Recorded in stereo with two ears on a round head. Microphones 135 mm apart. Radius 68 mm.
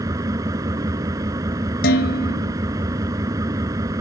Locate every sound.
0.0 s an engine running: 25° right (ahead or behind)
1.8 s dishes clattering: 80° left